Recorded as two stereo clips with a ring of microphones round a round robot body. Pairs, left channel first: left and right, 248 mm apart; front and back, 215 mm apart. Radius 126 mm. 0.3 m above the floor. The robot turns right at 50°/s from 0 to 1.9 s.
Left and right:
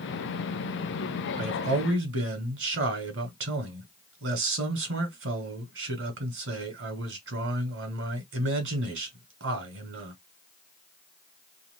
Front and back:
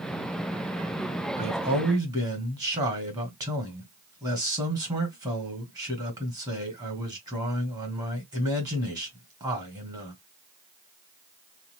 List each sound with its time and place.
1.4 s a man speaking: 135° right, 2 m; by 10.2 s 110° right, 2 m